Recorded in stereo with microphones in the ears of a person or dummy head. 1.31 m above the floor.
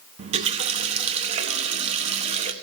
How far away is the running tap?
About 1.0 m.